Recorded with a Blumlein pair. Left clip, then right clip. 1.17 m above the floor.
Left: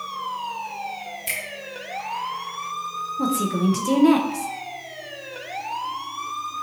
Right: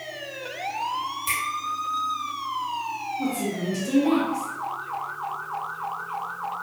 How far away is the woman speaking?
About 0.7 m.